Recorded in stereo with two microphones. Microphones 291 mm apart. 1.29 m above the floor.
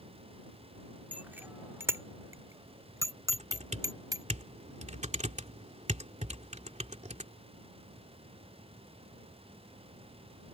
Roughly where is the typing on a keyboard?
Right.